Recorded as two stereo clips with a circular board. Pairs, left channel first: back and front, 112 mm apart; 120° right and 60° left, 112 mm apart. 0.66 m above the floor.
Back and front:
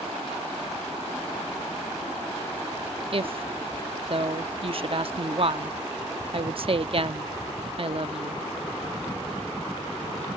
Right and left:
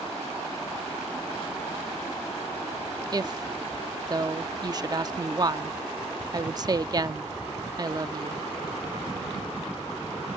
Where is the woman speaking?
15° left.